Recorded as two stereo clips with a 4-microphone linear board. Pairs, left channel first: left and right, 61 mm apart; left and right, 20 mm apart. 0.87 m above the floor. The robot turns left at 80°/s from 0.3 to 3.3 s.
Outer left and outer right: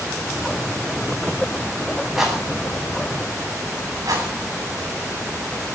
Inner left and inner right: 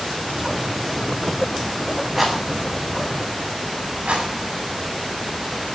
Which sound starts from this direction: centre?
A rattle, at 2.2 s.